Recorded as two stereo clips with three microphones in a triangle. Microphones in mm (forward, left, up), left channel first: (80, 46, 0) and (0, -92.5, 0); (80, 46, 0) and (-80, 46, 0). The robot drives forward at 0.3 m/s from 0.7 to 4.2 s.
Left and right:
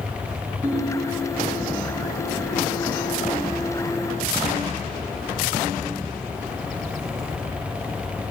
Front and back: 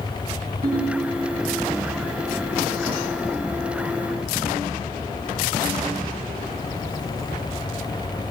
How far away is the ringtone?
About 4 m.